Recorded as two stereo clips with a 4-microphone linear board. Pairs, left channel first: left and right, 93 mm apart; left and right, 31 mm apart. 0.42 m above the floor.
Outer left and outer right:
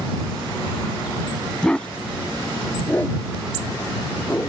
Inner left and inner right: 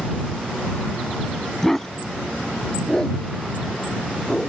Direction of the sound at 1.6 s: 10° left (ahead or behind).